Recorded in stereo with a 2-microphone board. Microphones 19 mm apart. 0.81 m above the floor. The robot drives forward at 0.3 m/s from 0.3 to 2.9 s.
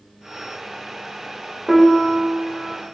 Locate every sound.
1.7 s a piano: 10° right (ahead or behind), 2.5 m